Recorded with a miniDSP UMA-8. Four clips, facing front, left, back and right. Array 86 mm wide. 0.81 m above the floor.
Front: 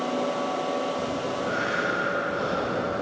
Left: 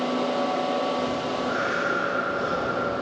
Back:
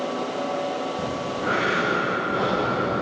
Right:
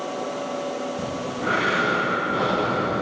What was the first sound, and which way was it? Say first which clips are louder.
Breathing: left 2 dB, back 1 dB; 120° right.